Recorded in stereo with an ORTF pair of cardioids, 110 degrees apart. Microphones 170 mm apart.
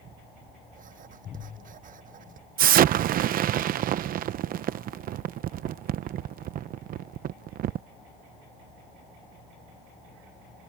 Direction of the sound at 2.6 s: 60° right.